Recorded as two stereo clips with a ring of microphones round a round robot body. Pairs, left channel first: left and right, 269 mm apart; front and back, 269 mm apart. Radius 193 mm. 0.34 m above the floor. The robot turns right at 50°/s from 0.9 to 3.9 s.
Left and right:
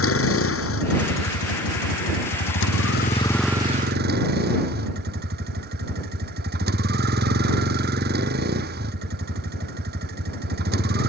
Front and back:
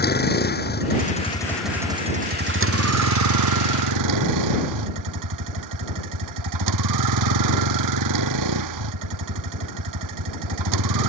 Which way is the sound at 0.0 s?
55° left.